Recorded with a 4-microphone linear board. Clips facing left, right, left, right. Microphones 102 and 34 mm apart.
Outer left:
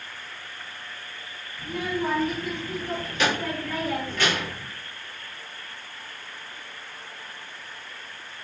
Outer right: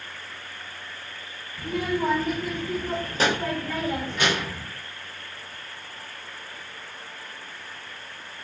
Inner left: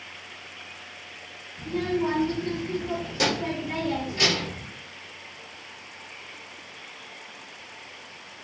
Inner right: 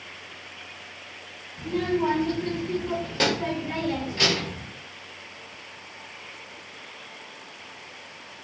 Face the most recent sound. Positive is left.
turn(degrees=-10)  # may be behind; listen again after turning